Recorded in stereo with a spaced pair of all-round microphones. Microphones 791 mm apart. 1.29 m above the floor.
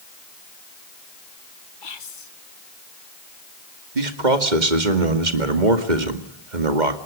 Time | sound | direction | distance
1.8 | whispering | 85° left | 1.6 m
4.0 | a man speaking | 65° right (ahead or behind) | 2 m